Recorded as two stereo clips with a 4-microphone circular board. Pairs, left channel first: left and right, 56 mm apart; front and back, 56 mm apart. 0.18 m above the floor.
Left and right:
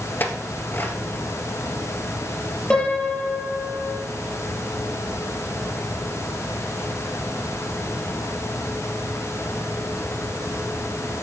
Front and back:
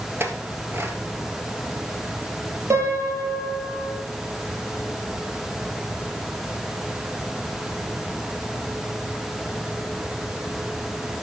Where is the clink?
140° left, 1.9 m.